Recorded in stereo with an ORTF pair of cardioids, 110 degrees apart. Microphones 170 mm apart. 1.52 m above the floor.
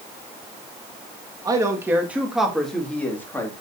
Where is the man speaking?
20° right, 1.7 m; by 3.5 s 15° left, 2.5 m.